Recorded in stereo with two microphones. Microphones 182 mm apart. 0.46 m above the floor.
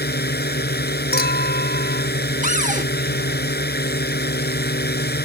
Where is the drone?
65° left (ahead or behind).